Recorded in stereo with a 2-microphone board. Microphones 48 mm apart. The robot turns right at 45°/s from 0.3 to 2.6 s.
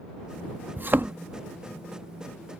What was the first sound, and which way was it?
A thud, 40° right (ahead or behind).